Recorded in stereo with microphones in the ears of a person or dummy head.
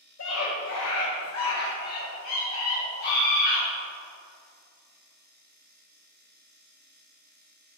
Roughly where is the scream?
Left.